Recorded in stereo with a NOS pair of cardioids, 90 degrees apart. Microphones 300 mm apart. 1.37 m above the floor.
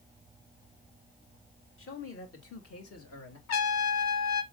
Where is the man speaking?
45° left, 3.5 m; by 3.4 s 60° left, 3 m.